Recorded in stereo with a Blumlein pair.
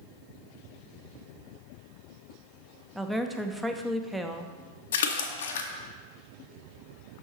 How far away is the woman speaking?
About 0.6 m.